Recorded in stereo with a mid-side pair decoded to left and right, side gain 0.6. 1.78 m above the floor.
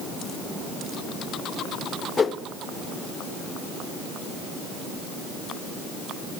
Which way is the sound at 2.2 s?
30° left.